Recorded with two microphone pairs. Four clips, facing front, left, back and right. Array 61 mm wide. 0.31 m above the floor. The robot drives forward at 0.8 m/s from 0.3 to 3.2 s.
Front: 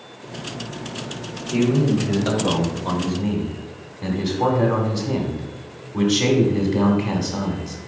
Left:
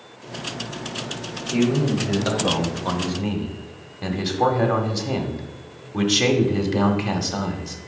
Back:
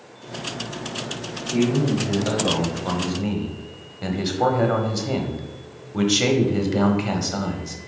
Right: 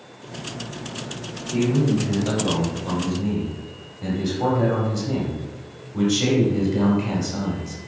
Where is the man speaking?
45° left, 1.3 m; by 7.8 s 130° left, 1.3 m.